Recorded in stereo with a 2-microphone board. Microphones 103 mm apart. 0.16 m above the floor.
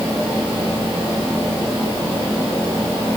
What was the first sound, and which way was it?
Only background noise.